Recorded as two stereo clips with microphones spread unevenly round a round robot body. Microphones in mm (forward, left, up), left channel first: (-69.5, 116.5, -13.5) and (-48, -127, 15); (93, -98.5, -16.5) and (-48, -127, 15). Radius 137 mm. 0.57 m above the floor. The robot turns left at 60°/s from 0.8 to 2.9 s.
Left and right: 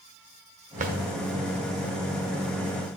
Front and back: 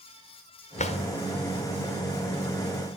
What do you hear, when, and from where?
0.8 s a drawer: 20° right, 1.1 m; by 1.0 s 30° right, 1.1 m